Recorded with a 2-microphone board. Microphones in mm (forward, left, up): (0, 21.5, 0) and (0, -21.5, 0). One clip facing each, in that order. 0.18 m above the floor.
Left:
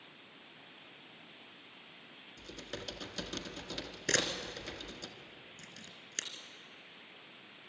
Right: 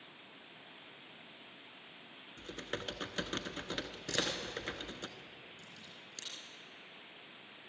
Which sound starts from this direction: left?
A camera shutter, at 4.1 s.